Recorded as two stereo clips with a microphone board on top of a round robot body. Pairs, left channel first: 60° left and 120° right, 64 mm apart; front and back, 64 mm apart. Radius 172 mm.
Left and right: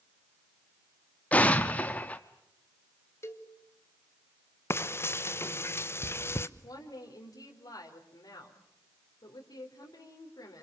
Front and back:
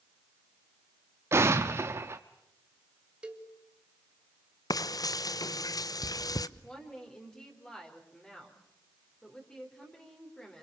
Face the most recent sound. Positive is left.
turn(degrees=80)